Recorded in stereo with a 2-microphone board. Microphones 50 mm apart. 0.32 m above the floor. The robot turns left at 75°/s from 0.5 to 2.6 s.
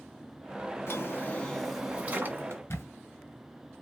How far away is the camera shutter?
About 2.5 m.